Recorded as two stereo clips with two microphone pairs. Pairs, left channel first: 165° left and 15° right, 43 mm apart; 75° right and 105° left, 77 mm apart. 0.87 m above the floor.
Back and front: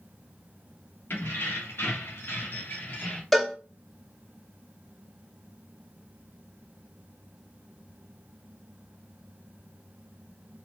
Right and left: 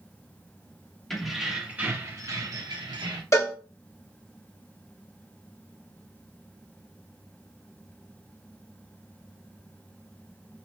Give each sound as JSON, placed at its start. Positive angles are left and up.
{"t": 1.1, "sound": "keys jangling", "azimuth_deg": -165, "distance_m": 0.8}
{"t": 3.3, "sound": "a cowbell", "azimuth_deg": -110, "distance_m": 0.6}